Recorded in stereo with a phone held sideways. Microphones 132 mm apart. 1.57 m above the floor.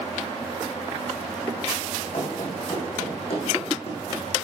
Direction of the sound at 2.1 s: 35° left (ahead or behind).